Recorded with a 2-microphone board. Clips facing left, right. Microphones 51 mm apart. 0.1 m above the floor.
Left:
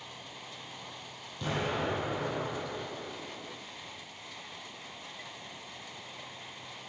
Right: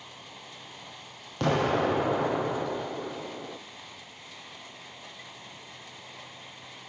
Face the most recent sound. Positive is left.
turn(degrees=-65)  # may be behind; listen again after turning